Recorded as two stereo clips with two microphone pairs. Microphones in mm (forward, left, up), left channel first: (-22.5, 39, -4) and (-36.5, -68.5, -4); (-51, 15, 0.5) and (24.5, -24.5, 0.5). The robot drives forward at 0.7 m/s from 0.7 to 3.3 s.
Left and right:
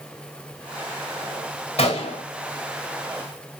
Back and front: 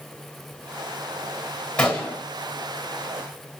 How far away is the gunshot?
About 2.5 m.